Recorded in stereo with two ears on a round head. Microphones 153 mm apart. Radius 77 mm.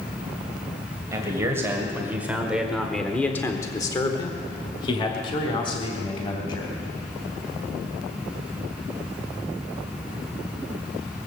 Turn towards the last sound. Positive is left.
turn(degrees=30)  # may be behind; listen again after turning